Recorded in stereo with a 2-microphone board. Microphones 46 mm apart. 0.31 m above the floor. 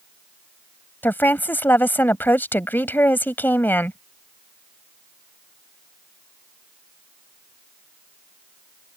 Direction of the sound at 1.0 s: 50° left (ahead or behind).